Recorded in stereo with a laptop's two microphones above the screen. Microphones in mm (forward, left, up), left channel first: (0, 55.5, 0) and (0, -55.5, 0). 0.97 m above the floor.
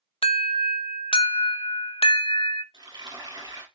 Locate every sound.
0.2 s an alarm: 60° left (ahead or behind), 0.5 m
2.7 s frying: 40° right (ahead or behind), 3.5 m